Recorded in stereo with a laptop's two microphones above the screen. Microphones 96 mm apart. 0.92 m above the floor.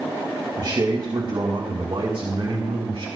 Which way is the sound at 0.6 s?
55° right (ahead or behind).